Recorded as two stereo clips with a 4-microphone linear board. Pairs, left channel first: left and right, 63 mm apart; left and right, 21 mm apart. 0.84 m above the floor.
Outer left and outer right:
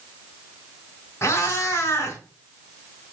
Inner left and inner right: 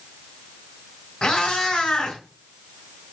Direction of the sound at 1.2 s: 45° left (ahead or behind).